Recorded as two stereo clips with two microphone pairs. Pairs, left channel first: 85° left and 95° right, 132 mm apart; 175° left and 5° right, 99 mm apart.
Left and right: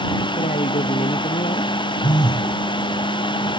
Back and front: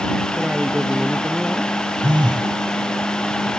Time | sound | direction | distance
0.4 | a man speaking | 75° left | ?
2.0 | a phone buzzing | 30° left | ?